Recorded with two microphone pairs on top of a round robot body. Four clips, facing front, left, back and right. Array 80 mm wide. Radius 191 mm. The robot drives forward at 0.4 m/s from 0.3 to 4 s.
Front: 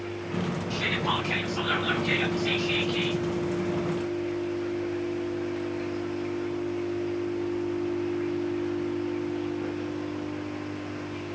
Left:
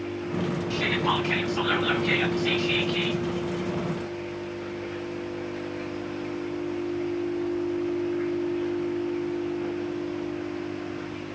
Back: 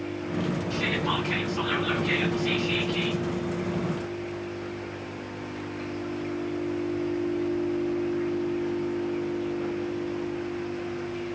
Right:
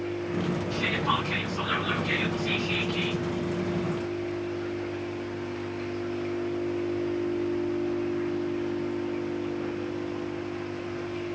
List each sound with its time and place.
0.7 s whispering: 55° left, 6 m; by 3.2 s 65° left, 5.5 m